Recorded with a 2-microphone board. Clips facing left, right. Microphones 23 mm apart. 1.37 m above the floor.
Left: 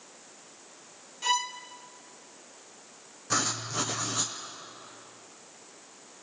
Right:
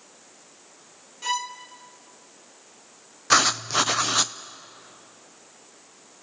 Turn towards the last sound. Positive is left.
turn(degrees=-50)  # may be behind; listen again after turning